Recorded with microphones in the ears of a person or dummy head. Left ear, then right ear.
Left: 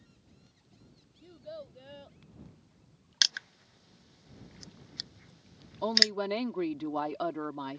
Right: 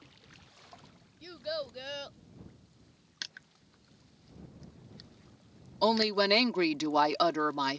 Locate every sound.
1.2 s a child speaking: 60° right (ahead or behind)
3.2 s crushing: 45° left (ahead or behind)
5.8 s a woman speaking: 75° right (ahead or behind)